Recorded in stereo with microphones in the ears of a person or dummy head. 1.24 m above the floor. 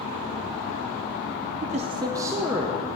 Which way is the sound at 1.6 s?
35° right (ahead or behind).